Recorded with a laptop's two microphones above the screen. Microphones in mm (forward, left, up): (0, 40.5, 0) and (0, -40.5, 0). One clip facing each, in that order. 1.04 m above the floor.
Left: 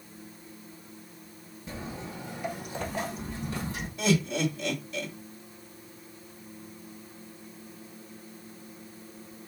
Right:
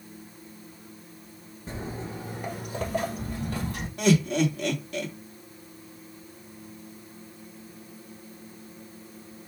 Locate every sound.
1.7 s footsteps: 40° right (ahead or behind), 1.3 m; by 3.9 s 65° right (ahead or behind), 2.5 m
4.0 s laughter: 70° right (ahead or behind), 1.8 m